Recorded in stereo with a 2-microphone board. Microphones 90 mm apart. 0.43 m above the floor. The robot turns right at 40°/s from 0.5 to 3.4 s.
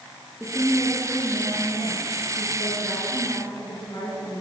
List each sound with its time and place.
0.4 s a woman speaking: 20° left, 7 m; by 4.4 s 135° left, 7 m